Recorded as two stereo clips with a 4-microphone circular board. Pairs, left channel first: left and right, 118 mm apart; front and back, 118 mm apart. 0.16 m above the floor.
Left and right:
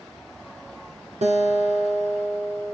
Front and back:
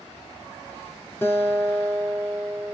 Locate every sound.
1.2 s a guitar: 75° right, 4 m